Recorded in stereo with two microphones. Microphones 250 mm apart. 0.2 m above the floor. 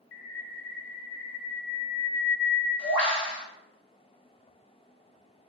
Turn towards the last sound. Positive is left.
turn(degrees=90)